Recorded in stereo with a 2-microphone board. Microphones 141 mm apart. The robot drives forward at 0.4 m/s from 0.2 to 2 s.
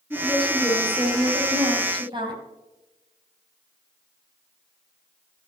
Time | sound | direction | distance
0.1 | a woman speaking | 30° right (ahead or behind) | 6 m